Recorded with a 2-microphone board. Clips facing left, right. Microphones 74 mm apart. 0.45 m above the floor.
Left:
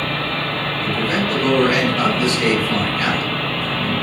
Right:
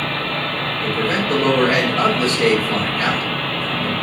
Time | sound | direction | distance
0.8 | a man speaking | 40° right (ahead or behind) | 1.5 m